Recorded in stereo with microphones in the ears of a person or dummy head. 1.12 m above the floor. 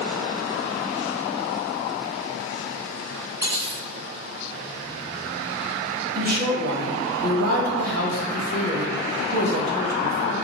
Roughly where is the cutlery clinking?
Centre.